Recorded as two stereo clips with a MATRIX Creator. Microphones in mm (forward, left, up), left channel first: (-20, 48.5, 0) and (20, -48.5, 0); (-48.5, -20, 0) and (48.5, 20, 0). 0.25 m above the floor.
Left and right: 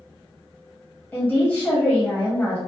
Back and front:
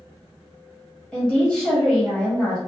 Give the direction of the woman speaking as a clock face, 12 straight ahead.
7 o'clock.